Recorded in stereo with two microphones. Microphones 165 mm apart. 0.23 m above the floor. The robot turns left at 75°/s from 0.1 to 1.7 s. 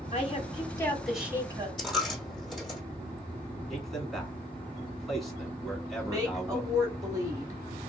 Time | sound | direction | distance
0.1 | a woman speaking | 75° left | 1.7 m
1.8 | a dropped coin | centre (ahead or behind) | 2.5 m
3.7 | a man speaking | centre (ahead or behind) | 2.0 m
6.0 | a woman speaking | 20° right (ahead or behind) | 1.6 m